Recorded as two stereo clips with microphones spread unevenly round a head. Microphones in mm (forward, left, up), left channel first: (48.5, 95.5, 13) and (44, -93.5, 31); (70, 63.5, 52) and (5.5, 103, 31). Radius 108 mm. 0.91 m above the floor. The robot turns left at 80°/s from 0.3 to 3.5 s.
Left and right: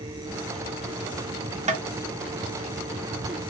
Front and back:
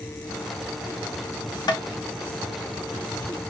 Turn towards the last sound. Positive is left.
turn(degrees=165)